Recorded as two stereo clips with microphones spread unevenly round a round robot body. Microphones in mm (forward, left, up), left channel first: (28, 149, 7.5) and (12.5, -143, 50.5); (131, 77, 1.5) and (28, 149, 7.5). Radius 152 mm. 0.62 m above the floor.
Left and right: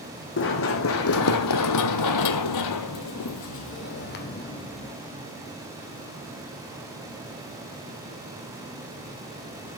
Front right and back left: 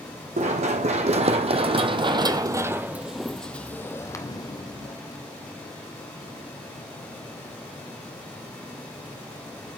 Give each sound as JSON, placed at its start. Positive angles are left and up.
{"t": 0.4, "sound": "running footsteps", "azimuth_deg": 140, "distance_m": 1.7}